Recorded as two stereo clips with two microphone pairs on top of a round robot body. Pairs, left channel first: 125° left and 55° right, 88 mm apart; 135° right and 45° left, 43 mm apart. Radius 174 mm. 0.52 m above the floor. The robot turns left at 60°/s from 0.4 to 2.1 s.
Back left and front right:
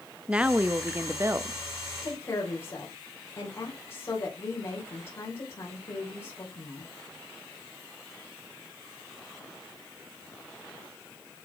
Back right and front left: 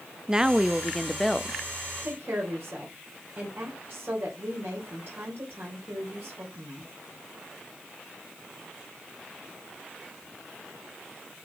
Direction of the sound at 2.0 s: 75° left.